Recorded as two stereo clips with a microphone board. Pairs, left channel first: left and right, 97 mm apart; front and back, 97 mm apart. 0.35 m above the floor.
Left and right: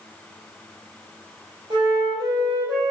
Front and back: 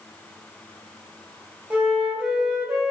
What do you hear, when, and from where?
1.7 s a flute: 105° right, 1.6 m